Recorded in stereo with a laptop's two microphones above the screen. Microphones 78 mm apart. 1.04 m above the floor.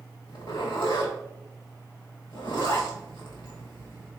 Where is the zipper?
85° left, 1.5 m.